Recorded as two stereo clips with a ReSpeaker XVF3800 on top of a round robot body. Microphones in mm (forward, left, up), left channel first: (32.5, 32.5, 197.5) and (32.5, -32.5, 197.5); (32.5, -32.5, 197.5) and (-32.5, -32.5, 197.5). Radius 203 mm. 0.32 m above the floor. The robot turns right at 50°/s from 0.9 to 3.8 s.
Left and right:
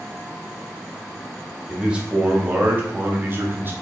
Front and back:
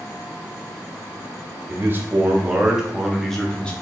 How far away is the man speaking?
About 0.9 m.